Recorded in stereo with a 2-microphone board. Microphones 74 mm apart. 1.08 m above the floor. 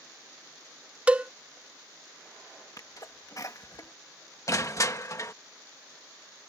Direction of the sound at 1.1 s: 15° right (ahead or behind).